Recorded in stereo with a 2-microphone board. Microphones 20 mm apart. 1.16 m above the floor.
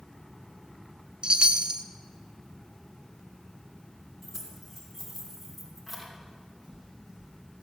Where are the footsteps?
25° right (ahead or behind), 3.5 m.